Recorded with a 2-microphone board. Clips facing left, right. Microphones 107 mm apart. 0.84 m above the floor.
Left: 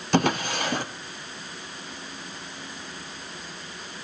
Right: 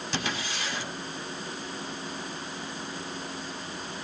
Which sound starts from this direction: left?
A drawer, at 0.1 s.